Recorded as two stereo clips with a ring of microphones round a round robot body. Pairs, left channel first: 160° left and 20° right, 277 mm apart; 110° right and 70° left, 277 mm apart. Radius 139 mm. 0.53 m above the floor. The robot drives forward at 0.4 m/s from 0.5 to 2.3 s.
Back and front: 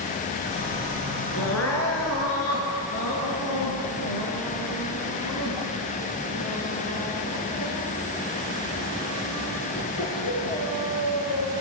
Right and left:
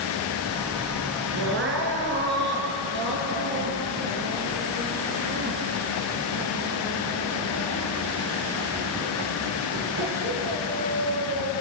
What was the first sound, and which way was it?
Crying, 115° left.